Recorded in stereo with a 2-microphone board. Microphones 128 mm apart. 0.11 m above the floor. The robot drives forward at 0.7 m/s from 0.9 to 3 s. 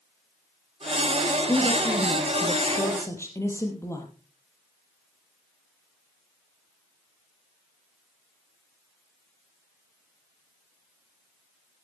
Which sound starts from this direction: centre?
A woman speaking, at 1.5 s.